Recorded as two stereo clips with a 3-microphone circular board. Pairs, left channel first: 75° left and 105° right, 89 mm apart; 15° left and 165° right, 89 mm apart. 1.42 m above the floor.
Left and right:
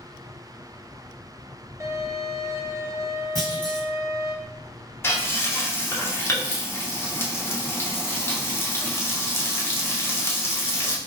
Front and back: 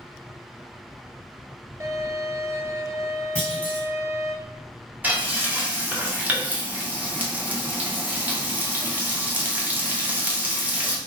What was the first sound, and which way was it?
A violin, 135° right.